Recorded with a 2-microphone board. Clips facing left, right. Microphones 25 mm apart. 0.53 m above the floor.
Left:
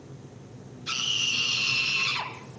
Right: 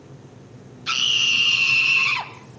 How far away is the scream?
About 3.5 m.